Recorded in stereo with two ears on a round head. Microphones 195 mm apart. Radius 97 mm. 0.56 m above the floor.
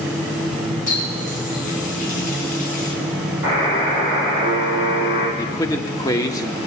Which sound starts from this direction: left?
A running tap, at 0.9 s.